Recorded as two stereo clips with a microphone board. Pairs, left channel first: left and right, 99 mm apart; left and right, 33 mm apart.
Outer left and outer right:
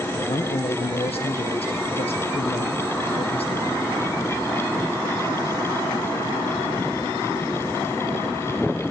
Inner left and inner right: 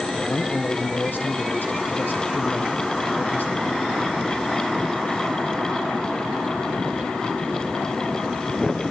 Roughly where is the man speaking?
Left.